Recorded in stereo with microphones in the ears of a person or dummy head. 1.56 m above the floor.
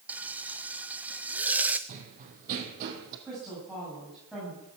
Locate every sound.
0.1 s frying: 10° right (ahead or behind), 0.7 m
1.9 s running footsteps: 40° right (ahead or behind), 3 m; by 3.1 s 50° right (ahead or behind), 3 m
3.2 s a woman speaking: centre (ahead or behind), 8.5 m